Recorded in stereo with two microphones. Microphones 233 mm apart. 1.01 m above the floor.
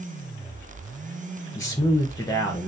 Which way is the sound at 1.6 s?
15° left (ahead or behind).